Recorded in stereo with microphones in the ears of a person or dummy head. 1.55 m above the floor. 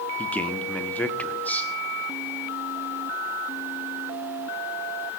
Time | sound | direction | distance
0.2 | a man speaking | 10° left (ahead or behind) | 1.1 m